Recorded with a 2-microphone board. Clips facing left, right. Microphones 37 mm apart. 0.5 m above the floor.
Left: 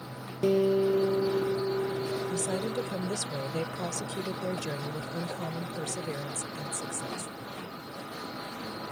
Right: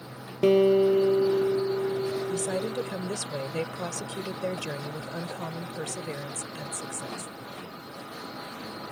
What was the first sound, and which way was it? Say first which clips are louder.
A guitar: right 5 dB; 55° right (ahead or behind).